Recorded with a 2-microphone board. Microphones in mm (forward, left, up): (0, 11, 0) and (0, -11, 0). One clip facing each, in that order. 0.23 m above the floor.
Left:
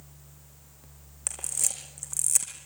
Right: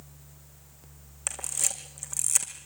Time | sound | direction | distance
1.3 | a camera shutter | 15° right (ahead or behind) | 4.5 m